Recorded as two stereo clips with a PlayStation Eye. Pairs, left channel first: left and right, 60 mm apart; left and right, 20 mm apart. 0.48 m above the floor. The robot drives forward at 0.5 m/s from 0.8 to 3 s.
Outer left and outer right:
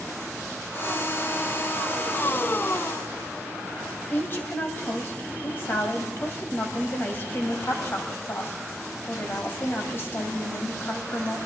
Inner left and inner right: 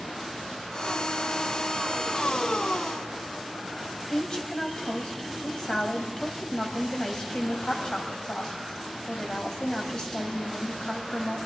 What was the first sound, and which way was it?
A woman speaking, 40° left (ahead or behind).